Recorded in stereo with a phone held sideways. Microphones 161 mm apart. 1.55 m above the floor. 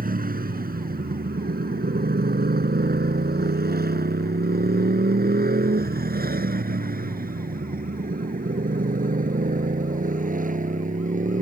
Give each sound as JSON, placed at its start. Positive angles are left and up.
{"t": 0.0, "sound": "a motorcycle", "side_deg": -65}